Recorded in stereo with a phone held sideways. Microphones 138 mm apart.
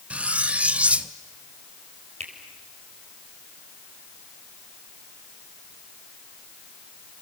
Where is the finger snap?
55° right (ahead or behind), 3.5 m.